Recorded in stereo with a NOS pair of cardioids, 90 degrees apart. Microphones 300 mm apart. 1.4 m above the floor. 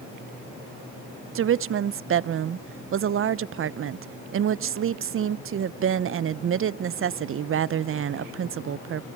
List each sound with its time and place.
1.4 s a woman speaking: 45° right, 0.8 m